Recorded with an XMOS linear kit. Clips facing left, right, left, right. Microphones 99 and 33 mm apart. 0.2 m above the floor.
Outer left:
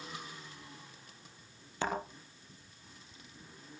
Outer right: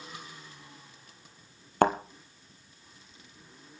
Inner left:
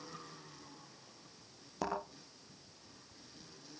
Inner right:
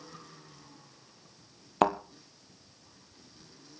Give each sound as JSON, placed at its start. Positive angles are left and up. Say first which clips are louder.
{"t": 1.8, "sound": "a thud", "louder": "outer right 11 dB, inner right 12 dB", "side_deg": -60, "distance_m": 2.0}